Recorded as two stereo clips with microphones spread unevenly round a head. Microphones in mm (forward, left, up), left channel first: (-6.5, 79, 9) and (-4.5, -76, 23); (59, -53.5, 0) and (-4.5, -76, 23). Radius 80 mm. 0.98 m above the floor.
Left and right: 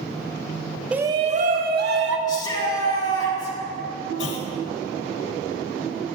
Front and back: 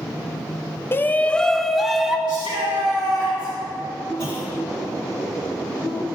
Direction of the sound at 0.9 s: Straight ahead.